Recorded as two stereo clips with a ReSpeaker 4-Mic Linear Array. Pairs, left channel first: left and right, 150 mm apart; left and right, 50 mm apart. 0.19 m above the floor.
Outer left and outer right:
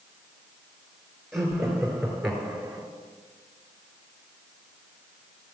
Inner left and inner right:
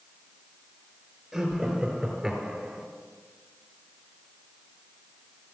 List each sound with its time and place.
1.3 s laughter: centre (ahead or behind), 4.5 m; by 2.9 s 5° right (ahead or behind), 3 m